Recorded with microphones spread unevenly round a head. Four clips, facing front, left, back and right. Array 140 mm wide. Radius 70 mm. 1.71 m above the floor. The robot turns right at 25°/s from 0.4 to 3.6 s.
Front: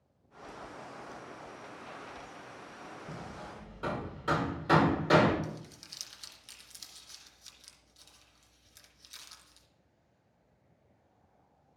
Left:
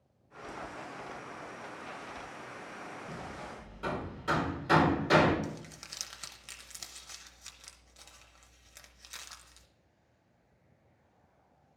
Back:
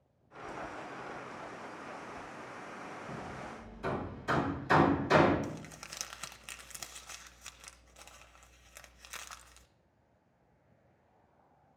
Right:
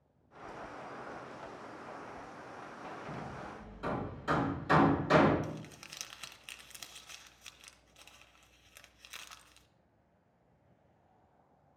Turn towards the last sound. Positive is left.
turn(degrees=170)